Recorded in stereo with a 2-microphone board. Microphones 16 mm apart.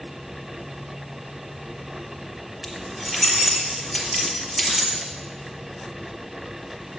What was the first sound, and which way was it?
Keys jangling, 5° right (ahead or behind).